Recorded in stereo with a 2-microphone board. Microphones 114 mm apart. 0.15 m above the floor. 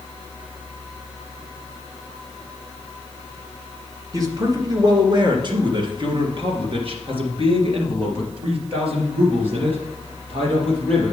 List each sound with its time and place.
4.1 s a man speaking: 30° right (ahead or behind), 1.8 m; by 11.1 s 55° right (ahead or behind), 5 m